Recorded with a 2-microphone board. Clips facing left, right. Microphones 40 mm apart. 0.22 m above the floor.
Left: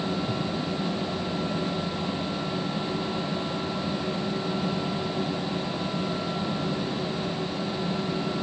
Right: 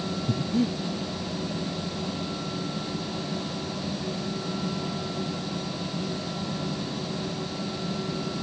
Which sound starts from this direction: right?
Breathing, at 0.3 s.